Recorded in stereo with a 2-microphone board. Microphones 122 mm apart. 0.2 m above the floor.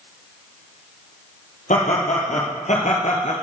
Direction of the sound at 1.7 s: 80° left.